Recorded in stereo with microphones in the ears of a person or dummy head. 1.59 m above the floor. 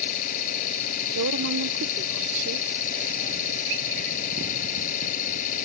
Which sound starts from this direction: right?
A woman speaking, at 1.1 s.